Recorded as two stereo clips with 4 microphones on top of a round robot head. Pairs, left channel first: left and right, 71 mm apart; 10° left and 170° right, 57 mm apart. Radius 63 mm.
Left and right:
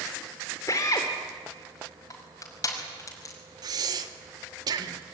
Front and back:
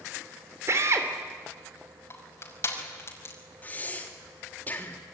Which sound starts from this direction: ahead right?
Breathing, at 3.6 s.